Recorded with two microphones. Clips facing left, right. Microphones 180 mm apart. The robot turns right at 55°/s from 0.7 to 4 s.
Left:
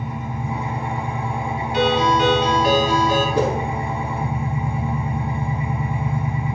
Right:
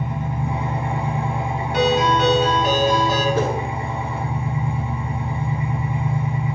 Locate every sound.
0.0 s an engine running: 60° right, 1.6 m; by 6.5 s 120° left, 1.6 m
1.7 s a ringtone: 85° right, 1.5 m; by 3.2 s straight ahead, 1.5 m
3.4 s a whoosh: 15° left (ahead or behind), 0.6 m; by 3.5 s 10° left (ahead or behind), 0.6 m